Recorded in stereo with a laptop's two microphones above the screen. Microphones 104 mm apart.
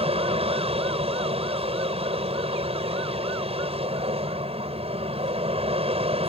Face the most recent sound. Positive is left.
turn(degrees=-70)  # may be behind; listen again after turning